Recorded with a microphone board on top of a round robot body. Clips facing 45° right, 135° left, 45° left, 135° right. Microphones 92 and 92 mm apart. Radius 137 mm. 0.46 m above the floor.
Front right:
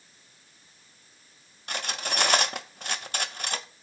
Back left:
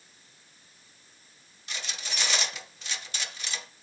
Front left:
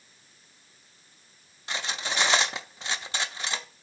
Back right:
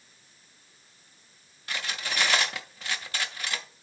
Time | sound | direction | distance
1.7 | cutlery clinking | 20° right | 0.7 m